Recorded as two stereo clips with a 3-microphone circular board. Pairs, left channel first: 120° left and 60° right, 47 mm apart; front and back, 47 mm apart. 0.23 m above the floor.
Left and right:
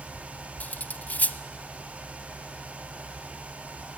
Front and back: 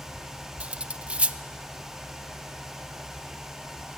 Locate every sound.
0.6 s cutlery clinking: 140° left, 0.7 m